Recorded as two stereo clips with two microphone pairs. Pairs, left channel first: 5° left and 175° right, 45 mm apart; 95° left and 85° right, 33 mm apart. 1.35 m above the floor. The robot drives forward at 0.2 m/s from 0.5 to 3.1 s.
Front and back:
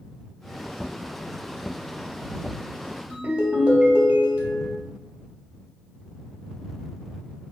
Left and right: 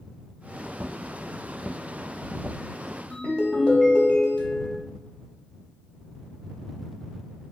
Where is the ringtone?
135° left, 1.8 m.